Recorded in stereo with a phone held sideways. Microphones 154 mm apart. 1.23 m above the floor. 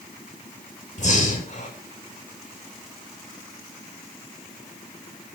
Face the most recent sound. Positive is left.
turn(degrees=50)  # may be behind; listen again after turning